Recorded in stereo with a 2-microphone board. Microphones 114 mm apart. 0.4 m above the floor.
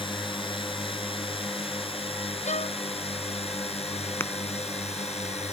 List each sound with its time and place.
0.0 s a drone: 50° left (ahead or behind); by 5.5 s 70° left (ahead or behind)
2.5 s a violin: 85° left
4.2 s tapping: 20° left (ahead or behind)